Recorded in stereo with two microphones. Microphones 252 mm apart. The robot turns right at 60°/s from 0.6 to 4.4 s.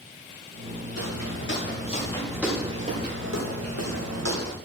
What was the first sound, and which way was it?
Footsteps, 75° left (ahead or behind).